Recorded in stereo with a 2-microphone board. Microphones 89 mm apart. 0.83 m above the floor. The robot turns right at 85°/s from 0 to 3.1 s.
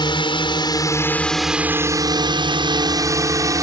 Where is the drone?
55° left (ahead or behind); by 3.6 s 40° right (ahead or behind).